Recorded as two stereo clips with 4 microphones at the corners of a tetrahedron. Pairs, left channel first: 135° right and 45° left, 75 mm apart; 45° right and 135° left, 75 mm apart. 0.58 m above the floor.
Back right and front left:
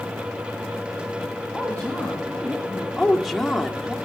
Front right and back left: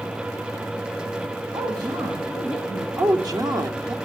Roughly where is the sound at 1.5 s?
Behind left.